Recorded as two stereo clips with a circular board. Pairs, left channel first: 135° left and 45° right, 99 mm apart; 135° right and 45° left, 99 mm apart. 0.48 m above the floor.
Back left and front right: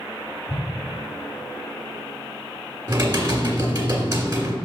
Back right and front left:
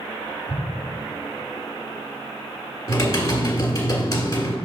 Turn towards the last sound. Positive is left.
turn(degrees=-90)